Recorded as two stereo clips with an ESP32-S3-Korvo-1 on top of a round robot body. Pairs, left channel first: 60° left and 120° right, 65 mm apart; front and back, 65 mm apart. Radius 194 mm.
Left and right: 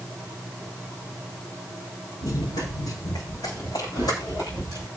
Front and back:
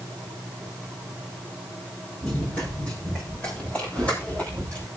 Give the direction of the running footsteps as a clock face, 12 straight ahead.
10 o'clock.